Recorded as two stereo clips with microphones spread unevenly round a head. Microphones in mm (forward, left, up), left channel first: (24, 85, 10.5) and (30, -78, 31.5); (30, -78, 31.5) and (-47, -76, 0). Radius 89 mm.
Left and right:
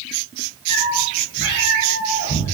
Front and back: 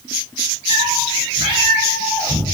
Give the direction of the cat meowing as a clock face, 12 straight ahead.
7 o'clock.